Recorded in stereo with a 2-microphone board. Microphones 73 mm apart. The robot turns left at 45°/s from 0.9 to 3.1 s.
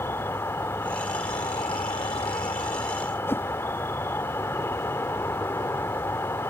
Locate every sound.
0.0 s an insect: 140° left; by 6.5 s 40° left
3.3 s a whoosh: 30° left (ahead or behind)